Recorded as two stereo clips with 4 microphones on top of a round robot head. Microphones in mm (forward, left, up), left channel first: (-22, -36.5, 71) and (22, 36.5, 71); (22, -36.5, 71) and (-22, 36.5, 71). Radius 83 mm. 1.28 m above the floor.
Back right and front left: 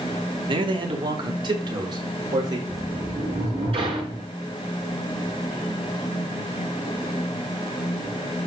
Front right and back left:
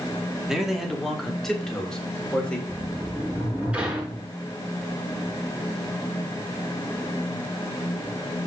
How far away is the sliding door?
About 7 m.